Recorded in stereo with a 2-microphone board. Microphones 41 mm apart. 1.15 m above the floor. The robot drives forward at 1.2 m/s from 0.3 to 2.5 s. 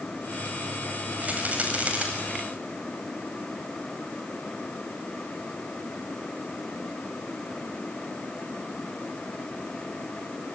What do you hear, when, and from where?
1.2 s a rattle: 40° right (ahead or behind), 5.5 m; by 2.1 s 30° right (ahead or behind), 6.5 m